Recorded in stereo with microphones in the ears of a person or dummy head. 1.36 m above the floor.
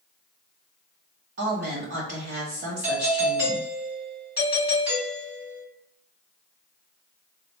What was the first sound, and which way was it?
A woman speaking, 45° right (ahead or behind).